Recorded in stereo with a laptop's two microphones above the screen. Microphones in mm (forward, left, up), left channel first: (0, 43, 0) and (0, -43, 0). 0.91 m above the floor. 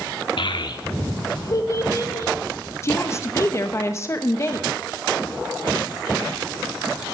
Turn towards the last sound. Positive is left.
turn(degrees=35)  # may be behind; listen again after turning